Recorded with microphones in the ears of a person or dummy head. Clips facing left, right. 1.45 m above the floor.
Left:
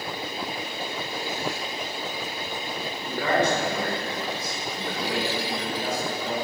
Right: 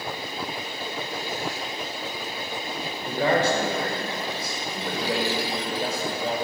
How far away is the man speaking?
About 4.5 m.